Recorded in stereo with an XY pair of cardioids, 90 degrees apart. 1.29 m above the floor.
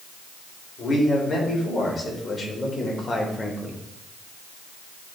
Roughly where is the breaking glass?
No breaking glass in this recording.